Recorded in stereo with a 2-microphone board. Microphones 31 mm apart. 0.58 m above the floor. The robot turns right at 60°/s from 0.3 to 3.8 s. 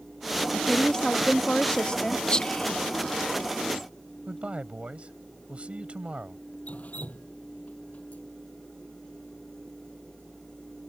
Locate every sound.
0.5 s a woman speaking: 35° left; by 2.2 s 135° left
2.3 s whispering: 30° left (ahead or behind); by 3.9 s 10° left (ahead or behind)
4.3 s a man speaking: 40° right (ahead or behind)
6.7 s dripping: 50° left (ahead or behind)